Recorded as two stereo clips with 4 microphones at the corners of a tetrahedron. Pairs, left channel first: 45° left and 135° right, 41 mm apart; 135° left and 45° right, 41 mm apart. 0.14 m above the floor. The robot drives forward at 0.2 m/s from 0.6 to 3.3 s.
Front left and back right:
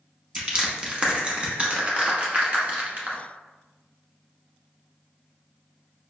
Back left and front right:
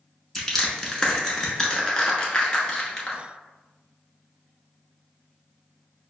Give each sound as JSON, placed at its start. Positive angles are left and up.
{"t": 0.3, "sound": "crushing", "azimuth_deg": -160, "distance_m": 0.8}